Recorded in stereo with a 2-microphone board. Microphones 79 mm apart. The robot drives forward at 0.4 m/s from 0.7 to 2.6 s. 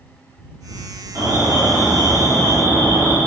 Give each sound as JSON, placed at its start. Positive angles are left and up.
{"t": 1.1, "sound": "an alarm", "side_deg": -55, "distance_m": 2.0}